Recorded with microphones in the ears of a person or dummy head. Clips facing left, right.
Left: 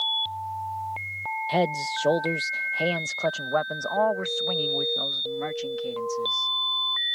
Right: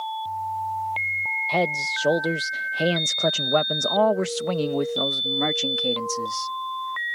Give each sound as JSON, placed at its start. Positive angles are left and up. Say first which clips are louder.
{"t": 1.5, "sound": "a man speaking", "louder": "even", "side_deg": 5}